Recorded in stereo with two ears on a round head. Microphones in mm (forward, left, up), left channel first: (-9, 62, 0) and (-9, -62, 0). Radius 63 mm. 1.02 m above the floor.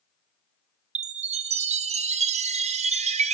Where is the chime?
50° right (ahead or behind), 1.4 m.